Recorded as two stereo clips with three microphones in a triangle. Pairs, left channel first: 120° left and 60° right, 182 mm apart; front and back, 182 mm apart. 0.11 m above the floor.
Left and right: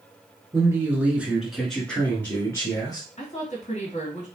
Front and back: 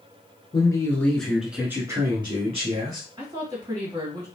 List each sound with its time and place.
0.5 s a man speaking: 20° right, 1.1 m; by 3.1 s straight behind, 1.4 m
3.2 s a woman speaking: 125° left, 2 m